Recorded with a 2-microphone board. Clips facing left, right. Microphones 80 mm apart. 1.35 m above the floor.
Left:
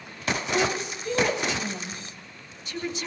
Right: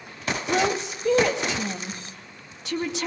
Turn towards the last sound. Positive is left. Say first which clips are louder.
# right 4 dB
turn(degrees=-75)  # may be behind; listen again after turning